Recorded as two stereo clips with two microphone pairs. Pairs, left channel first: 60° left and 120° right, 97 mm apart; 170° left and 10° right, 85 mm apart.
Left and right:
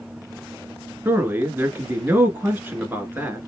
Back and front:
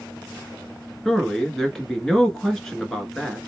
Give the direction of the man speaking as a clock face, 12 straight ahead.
4 o'clock.